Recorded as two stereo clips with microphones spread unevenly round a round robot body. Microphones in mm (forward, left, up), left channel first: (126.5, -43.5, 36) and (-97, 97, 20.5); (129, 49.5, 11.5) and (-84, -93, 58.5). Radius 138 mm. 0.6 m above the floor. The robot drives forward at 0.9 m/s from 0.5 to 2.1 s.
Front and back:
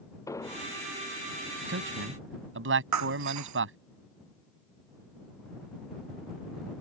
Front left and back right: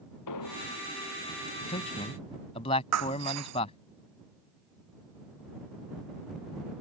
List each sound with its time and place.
0.3 s an explosion: 45° left
1.6 s a man speaking: 100° left; by 3.8 s 105° left
2.9 s breaking glass: straight behind